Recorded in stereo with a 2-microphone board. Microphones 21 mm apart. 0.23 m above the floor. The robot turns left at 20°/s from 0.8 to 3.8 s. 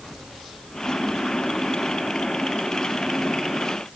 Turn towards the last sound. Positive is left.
No sound to turn to.